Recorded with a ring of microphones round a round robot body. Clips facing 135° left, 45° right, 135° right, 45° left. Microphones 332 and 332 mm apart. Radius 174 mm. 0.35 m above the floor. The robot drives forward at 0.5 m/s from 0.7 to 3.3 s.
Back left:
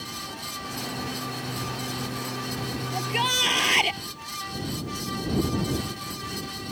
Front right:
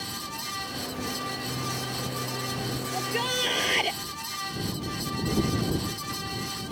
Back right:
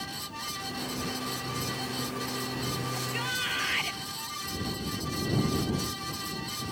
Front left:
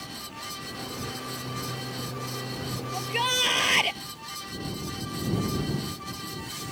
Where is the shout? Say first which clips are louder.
Front right 1 dB, front left 4 dB; 70° left.